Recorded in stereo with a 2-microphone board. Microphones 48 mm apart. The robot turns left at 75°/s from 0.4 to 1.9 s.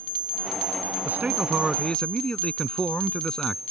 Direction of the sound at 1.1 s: 130° right.